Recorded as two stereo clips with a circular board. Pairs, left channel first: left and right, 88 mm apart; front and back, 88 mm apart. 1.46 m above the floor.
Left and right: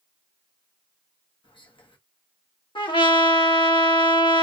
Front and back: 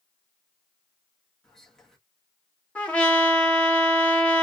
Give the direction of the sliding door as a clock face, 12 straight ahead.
I don't hear a sliding door.